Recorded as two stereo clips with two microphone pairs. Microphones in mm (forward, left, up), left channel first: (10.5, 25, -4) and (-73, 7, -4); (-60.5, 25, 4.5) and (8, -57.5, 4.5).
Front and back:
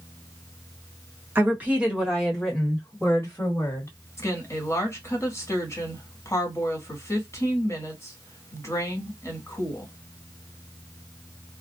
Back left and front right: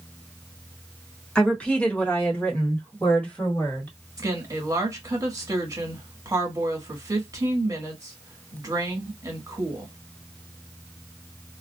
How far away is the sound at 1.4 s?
About 1.3 m.